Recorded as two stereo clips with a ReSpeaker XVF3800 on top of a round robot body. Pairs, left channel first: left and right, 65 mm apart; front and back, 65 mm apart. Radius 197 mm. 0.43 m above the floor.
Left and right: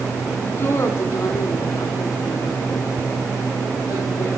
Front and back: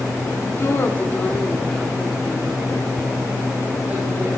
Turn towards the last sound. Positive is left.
turn(degrees=120)